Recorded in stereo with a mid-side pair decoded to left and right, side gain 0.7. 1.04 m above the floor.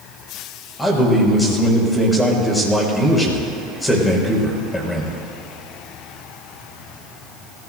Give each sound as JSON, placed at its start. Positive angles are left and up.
{"t": 0.8, "sound": "a man speaking", "azimuth_deg": 10, "distance_m": 6.0}